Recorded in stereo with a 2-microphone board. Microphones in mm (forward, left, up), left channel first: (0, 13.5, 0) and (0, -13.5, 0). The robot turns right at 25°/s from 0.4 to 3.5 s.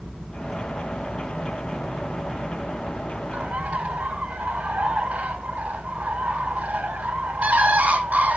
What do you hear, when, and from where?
3.3 s a bird: 70° right (ahead or behind), 7.5 m; by 8.4 s 65° right (ahead or behind), 7.5 m